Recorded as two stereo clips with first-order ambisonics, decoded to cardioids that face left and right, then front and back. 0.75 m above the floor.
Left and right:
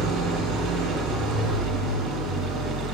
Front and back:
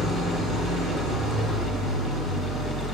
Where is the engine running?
60° right, 7 m.